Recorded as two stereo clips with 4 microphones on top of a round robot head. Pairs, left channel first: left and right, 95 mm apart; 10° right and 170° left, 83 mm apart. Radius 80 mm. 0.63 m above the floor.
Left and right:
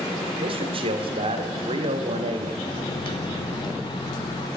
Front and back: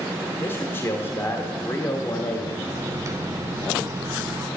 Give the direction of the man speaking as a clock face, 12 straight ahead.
2 o'clock.